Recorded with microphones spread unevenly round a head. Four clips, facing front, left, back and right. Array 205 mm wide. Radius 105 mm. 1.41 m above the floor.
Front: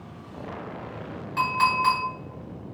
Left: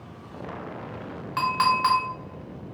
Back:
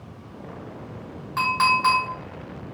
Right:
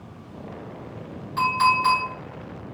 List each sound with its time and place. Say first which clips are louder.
1.4 s a clink: right 2 dB, back 2 dB; 110° left, 1.0 m